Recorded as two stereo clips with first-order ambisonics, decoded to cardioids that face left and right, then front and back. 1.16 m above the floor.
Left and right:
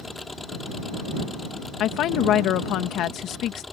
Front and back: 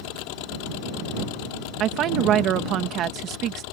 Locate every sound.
0.0 s an engine running: 10° left
1.8 s a woman speaking: 135° left